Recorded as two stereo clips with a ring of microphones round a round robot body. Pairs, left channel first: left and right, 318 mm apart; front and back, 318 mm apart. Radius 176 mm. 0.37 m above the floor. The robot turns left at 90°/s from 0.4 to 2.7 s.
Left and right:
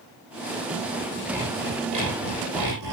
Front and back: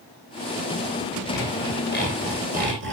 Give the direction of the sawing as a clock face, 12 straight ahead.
12 o'clock.